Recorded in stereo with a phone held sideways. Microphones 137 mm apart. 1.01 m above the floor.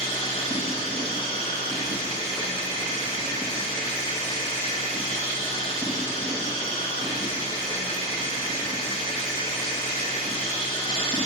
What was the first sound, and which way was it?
A machine running, 45° left (ahead or behind).